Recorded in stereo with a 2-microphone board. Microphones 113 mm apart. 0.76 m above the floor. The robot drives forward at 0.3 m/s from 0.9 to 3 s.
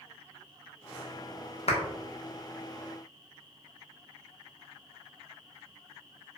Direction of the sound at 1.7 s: 65° left (ahead or behind).